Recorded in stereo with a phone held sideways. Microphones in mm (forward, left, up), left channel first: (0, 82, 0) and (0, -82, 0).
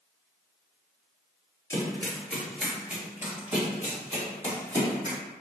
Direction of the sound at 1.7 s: 20° left (ahead or behind).